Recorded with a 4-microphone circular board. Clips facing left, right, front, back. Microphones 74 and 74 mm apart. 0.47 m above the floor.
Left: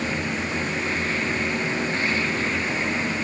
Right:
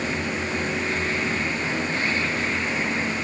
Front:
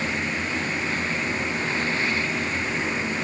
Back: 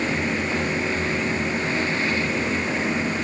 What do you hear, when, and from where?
Only background noise.